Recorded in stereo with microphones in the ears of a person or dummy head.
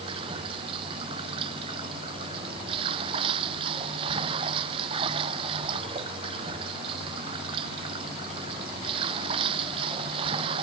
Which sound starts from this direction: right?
Running water, at 0.0 s.